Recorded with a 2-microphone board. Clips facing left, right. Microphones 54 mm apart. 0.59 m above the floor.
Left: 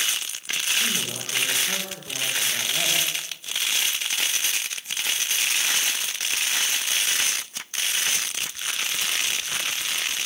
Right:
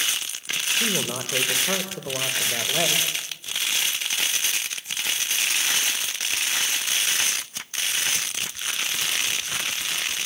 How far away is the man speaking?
About 3 m.